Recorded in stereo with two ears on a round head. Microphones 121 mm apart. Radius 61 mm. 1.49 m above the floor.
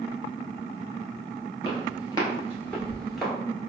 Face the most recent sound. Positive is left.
turn(degrees=0)  # may be behind; listen again after turning